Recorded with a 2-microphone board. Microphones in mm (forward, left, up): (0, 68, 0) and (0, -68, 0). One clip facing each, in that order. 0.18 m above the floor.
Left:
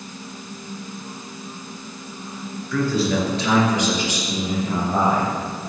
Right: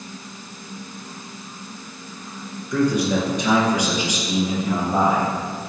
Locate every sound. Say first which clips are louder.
2.7 s a man speaking: right 1 dB; 20° right (ahead or behind), 3 m; by 5.3 s 10° right (ahead or behind), 6 m